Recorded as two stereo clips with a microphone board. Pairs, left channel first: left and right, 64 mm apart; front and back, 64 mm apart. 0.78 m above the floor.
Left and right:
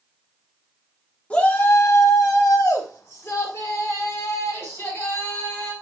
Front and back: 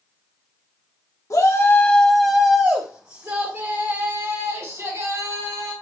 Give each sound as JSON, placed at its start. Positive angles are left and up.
{"t": 1.3, "sound": "a shout", "azimuth_deg": 20, "distance_m": 1.6}